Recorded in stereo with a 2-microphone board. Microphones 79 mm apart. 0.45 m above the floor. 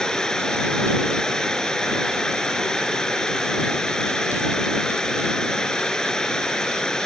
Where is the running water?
10° left (ahead or behind).